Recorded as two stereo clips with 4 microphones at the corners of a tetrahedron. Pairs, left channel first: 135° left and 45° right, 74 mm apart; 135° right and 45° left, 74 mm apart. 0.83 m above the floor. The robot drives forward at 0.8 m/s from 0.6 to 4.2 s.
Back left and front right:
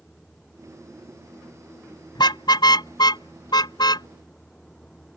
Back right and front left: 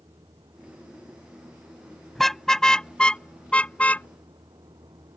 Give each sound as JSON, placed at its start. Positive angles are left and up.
{"t": 0.0, "sound": "a vehicle", "azimuth_deg": 55}
{"t": 2.1, "sound": "a car horn", "azimuth_deg": 140}